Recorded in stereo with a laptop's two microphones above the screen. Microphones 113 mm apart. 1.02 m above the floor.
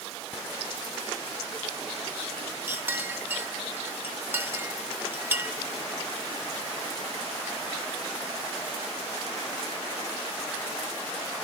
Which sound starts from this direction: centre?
A clink, at 2.7 s.